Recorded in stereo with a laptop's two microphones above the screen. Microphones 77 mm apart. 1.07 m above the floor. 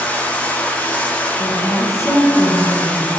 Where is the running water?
20° left (ahead or behind), 1.0 m.